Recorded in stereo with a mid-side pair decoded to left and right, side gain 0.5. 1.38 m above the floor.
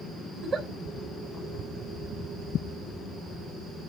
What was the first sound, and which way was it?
A giggle, 45° right.